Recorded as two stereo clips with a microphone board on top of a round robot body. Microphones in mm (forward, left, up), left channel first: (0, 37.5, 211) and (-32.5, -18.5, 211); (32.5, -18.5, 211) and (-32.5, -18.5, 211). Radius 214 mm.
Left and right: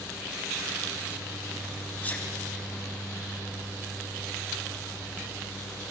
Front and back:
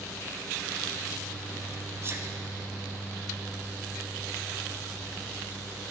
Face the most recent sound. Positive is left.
turn(degrees=125)